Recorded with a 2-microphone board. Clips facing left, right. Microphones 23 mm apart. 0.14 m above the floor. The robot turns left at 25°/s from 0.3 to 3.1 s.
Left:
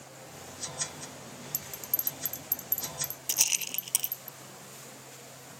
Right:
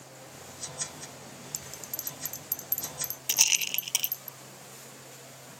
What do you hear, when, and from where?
1.5 s a bell: 15° right (ahead or behind); by 4.3 s 45° right (ahead or behind)
3.3 s a rattle: 30° right (ahead or behind)